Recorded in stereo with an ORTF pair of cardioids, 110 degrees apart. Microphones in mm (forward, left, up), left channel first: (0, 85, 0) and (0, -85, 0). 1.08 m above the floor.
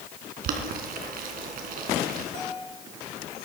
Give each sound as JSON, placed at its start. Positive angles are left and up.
{"t": 0.4, "sound": "boiling", "azimuth_deg": -60, "distance_m": 3.0}
{"t": 2.3, "sound": "a bell", "azimuth_deg": -65, "distance_m": 9.0}